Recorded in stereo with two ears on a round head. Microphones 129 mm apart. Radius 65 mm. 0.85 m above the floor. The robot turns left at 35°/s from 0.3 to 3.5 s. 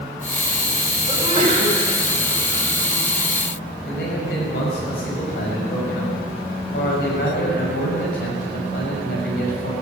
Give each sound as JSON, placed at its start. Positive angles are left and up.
{"t": 1.1, "sound": "a sneeze", "side_deg": -30, "distance_m": 4.5}
{"t": 3.9, "sound": "a man speaking", "side_deg": 80, "distance_m": 6.0}